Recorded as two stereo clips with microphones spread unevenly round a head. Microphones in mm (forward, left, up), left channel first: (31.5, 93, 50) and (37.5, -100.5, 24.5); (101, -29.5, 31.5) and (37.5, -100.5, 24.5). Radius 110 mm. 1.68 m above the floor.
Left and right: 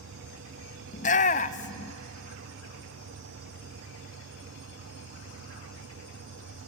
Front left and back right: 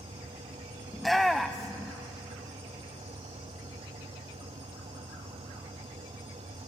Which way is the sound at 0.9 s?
135° left.